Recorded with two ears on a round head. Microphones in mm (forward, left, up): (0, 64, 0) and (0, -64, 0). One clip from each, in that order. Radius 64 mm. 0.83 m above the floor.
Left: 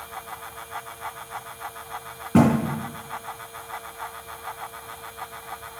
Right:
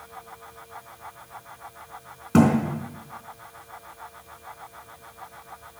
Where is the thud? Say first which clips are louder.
Even; 50° right (ahead or behind), 3.5 m.